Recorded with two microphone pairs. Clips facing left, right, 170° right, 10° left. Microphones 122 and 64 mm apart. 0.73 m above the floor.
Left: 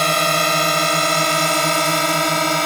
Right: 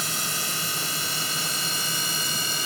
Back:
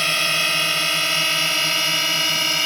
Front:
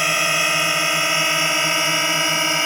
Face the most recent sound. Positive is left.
turn(degrees=80)